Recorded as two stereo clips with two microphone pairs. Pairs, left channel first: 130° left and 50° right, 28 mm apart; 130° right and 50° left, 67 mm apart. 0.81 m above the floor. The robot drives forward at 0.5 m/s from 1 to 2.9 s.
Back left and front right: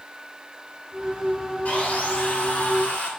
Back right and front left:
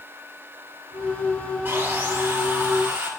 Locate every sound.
1.6 s sawing: 110° left, 2.5 m; by 3.1 s 125° left, 2.5 m